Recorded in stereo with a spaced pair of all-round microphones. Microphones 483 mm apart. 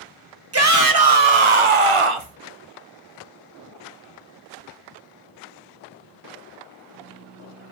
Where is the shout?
30° right (ahead or behind), 0.8 m; by 2.4 s 70° right (ahead or behind), 1.0 m.